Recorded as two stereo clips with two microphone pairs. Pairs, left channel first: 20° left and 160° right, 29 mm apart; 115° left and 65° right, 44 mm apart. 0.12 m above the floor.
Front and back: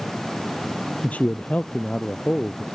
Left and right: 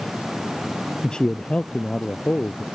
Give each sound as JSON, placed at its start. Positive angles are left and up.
{"t": 1.0, "sound": "a man speaking", "azimuth_deg": 40}